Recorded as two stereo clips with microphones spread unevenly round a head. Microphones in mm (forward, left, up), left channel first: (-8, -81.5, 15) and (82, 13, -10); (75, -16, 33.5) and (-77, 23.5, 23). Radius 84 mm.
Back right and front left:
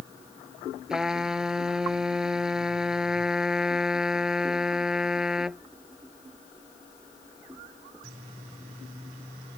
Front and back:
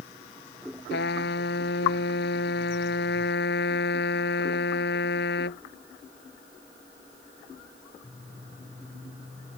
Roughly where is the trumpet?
Ahead right.